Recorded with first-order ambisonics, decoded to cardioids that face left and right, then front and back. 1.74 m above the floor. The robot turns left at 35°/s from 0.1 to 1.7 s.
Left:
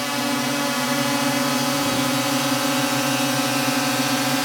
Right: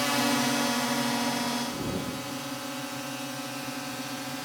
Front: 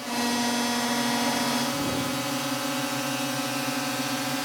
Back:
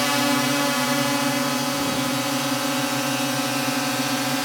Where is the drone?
170° left; by 4.5 s 115° left.